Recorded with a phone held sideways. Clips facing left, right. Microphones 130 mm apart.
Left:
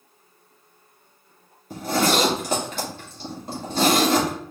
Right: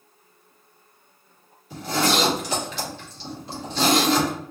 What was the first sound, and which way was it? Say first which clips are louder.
A zipper: left 2 dB; 45° left (ahead or behind).